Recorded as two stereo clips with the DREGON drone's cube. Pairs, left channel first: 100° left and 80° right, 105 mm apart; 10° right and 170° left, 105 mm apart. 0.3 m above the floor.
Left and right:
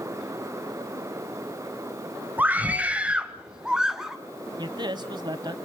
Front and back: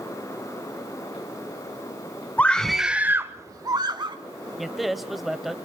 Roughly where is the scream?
Ahead right.